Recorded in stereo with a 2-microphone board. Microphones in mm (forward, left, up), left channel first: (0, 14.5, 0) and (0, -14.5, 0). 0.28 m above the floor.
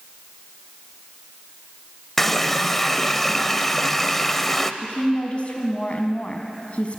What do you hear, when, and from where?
2.2 s a running tap: 10° left (ahead or behind), 0.7 m
4.8 s a woman speaking: 45° left (ahead or behind), 2.5 m